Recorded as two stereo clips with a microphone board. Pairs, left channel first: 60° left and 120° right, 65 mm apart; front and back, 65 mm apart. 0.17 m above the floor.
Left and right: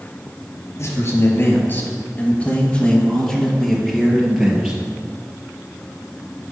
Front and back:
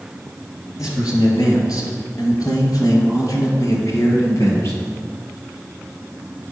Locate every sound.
0.8 s a man speaking: 20° left, 3.5 m; by 4.7 s 45° right, 4 m